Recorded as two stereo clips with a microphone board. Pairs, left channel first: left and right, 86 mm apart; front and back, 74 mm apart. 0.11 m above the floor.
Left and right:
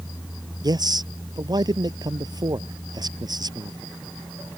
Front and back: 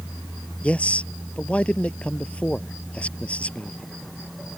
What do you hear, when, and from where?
0.6 s a man speaking: 70° right